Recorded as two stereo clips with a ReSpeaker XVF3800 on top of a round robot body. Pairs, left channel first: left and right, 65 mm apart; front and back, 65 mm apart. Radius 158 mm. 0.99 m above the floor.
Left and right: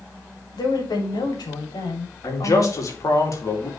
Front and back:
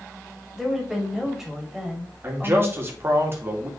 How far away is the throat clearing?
I don't hear throat clearing.